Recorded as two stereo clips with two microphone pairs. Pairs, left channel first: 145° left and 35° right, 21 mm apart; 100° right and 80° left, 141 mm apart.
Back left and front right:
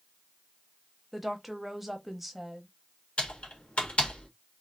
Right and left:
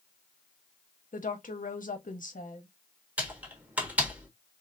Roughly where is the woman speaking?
Behind right.